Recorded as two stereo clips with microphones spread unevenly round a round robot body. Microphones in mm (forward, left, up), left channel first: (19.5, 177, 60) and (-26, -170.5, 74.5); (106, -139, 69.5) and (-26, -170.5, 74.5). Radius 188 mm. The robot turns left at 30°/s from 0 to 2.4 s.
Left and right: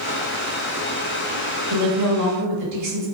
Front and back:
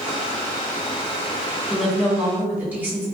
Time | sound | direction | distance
1.7 | a woman speaking | 70° right | 1.9 m